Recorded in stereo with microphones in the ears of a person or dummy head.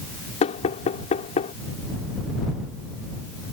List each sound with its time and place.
0.4 s knocking: 40° left (ahead or behind)